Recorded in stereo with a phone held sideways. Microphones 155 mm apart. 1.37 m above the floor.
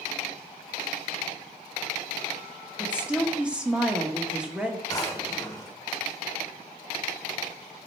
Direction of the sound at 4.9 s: 20° left (ahead or behind).